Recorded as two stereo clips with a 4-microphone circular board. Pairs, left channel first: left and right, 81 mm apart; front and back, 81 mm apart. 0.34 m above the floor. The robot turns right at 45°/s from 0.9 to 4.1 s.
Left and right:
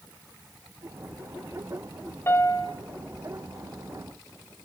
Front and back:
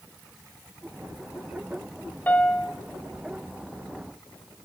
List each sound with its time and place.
2.3 s a piano: 55° left, 1.5 m; by 2.7 s 75° left, 1.5 m